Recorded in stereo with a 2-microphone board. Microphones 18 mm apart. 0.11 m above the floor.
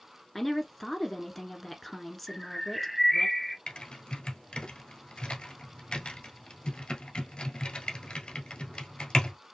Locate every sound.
0.3 s a woman speaking: 5° left (ahead or behind), 1.1 m
2.3 s a bird: centre (ahead or behind), 1.1 m
3.7 s typing on a keyboard: 55° left (ahead or behind), 1.3 m